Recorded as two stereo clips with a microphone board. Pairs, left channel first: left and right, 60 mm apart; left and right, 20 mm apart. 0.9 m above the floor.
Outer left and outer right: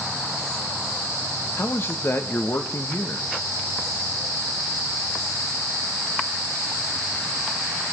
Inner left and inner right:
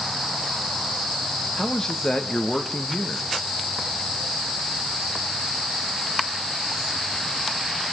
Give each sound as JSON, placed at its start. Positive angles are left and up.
{"t": 1.6, "sound": "a man speaking", "side_deg": 35, "distance_m": 1.1}